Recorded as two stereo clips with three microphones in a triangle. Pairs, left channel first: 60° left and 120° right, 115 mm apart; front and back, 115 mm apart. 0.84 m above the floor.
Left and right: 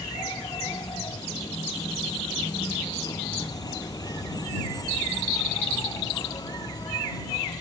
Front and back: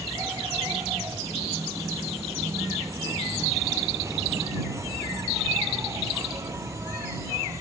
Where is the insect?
115° left.